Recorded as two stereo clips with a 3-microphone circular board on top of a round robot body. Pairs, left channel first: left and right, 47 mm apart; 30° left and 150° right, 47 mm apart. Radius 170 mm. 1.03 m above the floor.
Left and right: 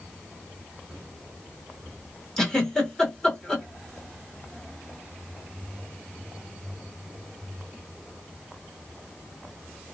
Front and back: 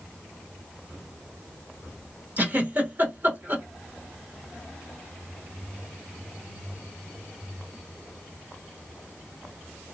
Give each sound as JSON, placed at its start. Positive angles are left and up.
{"t": 2.4, "sound": "a giggle", "azimuth_deg": 165, "distance_m": 2.5}